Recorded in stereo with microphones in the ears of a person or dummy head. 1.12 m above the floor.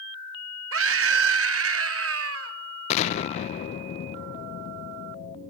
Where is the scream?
70° right (ahead or behind), 1.6 m.